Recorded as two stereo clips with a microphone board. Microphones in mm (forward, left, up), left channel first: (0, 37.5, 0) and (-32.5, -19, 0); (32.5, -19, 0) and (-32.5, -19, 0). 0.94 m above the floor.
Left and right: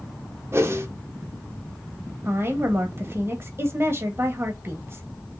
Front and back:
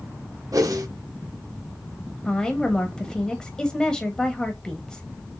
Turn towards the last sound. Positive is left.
turn(degrees=-75)